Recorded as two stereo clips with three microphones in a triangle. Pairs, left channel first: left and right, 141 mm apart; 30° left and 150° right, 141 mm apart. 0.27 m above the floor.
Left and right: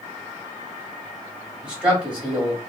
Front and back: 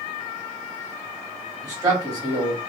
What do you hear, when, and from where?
1.6 s a man speaking: 165° right, 1.7 m